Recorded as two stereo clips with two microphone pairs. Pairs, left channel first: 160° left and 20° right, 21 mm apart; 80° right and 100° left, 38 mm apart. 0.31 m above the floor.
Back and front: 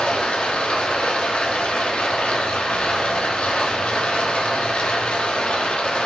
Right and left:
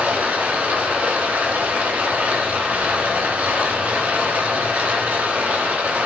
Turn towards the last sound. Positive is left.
turn(degrees=145)